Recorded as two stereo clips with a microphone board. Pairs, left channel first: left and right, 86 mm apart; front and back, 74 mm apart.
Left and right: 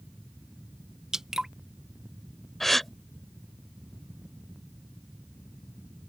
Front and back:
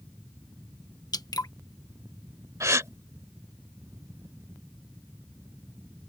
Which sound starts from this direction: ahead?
Dripping, at 1.1 s.